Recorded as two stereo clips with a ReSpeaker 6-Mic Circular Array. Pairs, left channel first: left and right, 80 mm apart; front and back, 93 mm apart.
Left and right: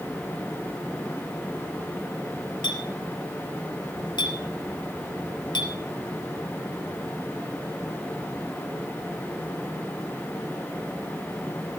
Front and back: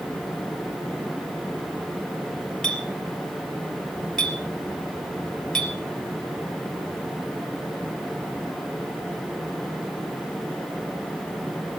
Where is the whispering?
I don't hear whispering.